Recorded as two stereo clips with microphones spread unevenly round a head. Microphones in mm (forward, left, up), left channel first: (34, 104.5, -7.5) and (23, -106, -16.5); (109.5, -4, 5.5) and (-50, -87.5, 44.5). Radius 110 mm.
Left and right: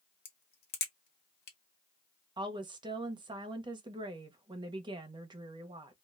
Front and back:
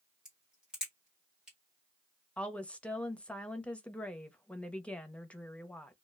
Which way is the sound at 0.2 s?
120° left.